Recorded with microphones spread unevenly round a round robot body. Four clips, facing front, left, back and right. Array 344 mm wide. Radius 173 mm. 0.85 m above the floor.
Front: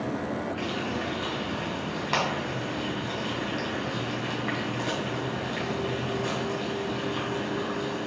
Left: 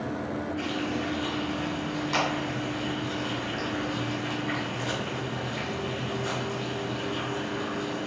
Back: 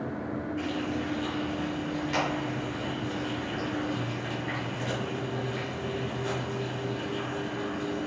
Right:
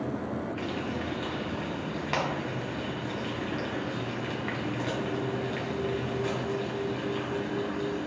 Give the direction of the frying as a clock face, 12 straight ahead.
1 o'clock.